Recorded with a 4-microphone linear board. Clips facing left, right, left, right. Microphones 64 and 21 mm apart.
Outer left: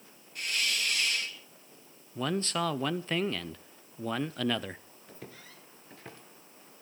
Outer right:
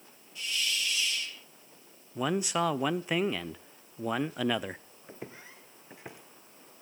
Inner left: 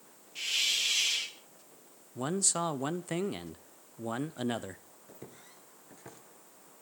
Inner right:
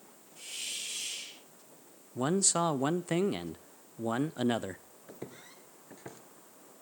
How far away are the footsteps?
About 1.4 m.